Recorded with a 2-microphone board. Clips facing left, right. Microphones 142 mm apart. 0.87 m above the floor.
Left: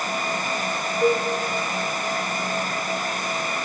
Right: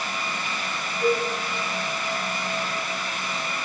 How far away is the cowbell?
About 0.7 m.